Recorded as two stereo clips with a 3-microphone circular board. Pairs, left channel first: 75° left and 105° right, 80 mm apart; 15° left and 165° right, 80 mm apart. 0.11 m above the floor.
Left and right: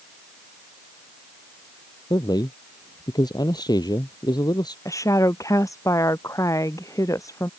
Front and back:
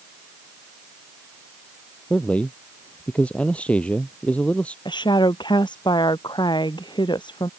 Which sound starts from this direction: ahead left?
A woman speaking, at 4.8 s.